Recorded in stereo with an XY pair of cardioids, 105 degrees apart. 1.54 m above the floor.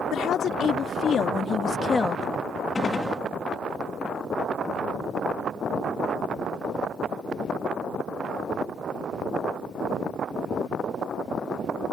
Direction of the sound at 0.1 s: 70° left.